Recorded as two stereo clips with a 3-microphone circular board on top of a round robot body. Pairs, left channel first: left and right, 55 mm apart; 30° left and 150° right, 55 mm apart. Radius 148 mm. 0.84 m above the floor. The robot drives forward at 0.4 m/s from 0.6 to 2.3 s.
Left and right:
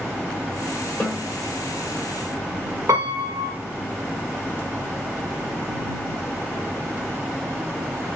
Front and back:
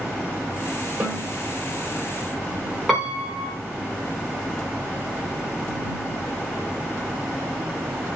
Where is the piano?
55° right, 0.6 m.